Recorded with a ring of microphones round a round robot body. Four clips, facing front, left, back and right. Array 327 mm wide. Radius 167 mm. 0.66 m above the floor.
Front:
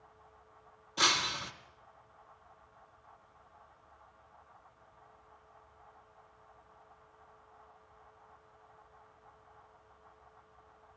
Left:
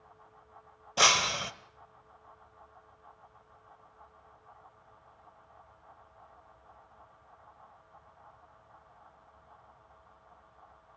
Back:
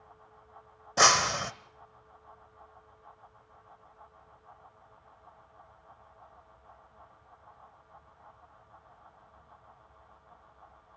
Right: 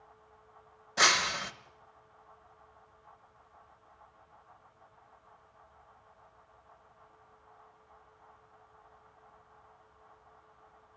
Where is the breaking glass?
165° left, 0.9 m.